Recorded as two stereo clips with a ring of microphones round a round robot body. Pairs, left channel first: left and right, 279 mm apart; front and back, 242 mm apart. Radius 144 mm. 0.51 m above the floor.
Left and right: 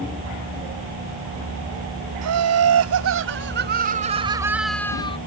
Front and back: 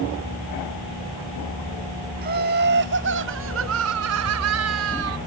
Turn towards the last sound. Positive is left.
turn(degrees=160)